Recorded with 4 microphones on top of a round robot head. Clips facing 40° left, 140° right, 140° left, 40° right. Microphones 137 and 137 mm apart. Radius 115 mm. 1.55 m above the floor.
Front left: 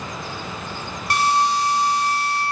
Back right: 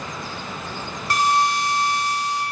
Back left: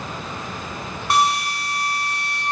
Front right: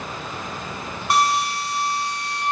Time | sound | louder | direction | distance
1.1 | a drill | front left 1 dB, even | 130° right | 2.5 m